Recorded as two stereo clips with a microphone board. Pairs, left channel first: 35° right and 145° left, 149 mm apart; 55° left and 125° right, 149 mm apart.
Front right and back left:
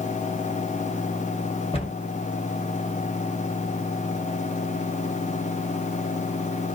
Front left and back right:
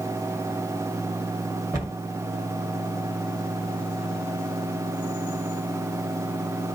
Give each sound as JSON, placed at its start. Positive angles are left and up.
{"t": 1.7, "sound": "a cupboard door", "azimuth_deg": -65, "distance_m": 2.0}